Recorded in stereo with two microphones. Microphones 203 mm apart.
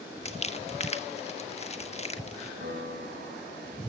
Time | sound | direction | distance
0.2 | crumpling | 30° left (ahead or behind) | 1.4 m
2.6 | a piano | 60° right (ahead or behind) | 5 m